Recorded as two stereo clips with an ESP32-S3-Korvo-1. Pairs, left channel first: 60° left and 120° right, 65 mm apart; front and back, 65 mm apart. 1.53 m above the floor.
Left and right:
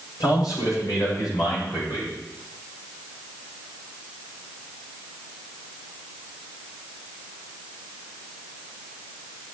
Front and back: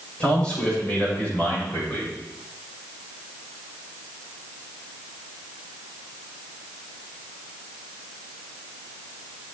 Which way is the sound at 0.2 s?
80° left.